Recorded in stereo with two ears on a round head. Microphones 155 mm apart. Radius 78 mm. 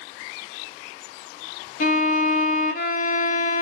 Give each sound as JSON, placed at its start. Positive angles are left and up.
{"t": 1.8, "sound": "a violin", "side_deg": 45, "distance_m": 0.5}